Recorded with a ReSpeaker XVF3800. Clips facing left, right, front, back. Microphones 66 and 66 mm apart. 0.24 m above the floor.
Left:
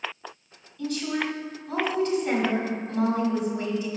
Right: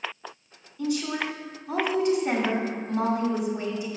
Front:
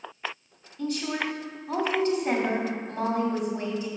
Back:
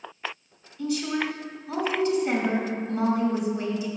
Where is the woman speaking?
25° right, 1.9 m.